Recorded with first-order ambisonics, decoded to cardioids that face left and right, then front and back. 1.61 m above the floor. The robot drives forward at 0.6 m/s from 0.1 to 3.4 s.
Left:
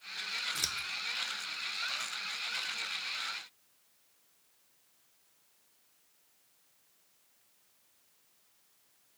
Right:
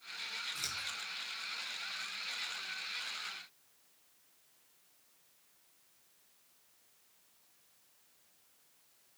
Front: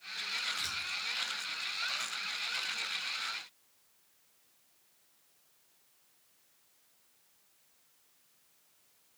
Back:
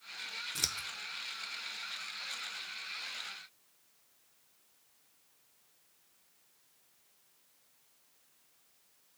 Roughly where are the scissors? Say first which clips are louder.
Left 4 dB, even; behind left.